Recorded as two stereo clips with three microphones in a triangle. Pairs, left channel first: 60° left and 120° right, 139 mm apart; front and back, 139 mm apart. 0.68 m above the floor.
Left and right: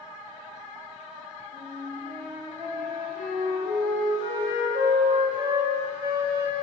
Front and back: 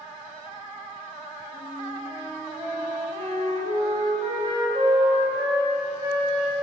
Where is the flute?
120° right, 2 m.